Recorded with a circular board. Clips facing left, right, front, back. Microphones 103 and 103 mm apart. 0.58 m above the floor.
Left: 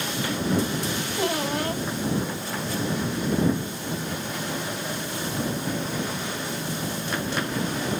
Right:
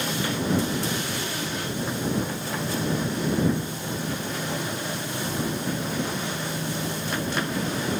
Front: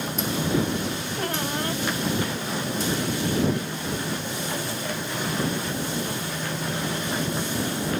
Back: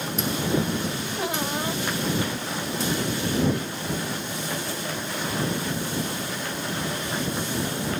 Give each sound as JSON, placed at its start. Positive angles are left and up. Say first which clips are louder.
{"t": 1.2, "sound": "a squeak", "louder": "left 5 dB, back 1 dB", "azimuth_deg": 95}